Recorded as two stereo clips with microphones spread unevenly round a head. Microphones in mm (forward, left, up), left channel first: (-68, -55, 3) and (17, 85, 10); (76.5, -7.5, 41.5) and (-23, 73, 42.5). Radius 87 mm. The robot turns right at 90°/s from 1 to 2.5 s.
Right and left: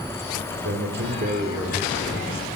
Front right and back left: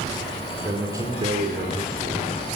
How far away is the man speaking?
About 4 m.